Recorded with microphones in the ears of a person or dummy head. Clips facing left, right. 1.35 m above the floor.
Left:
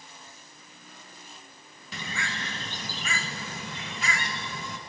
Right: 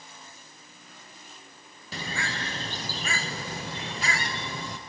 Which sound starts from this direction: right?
A bird, at 1.9 s.